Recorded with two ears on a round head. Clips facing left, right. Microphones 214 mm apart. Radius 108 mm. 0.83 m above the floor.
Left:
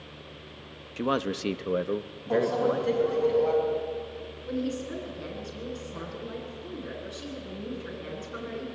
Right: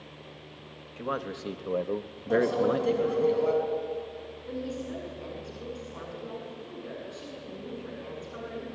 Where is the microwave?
20° right (ahead or behind), 5 m.